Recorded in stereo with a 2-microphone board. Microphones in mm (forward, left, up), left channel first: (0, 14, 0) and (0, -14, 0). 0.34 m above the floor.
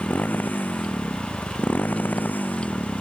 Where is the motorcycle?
90° left.